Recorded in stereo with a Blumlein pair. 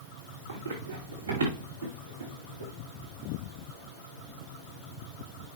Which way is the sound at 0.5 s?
70° right.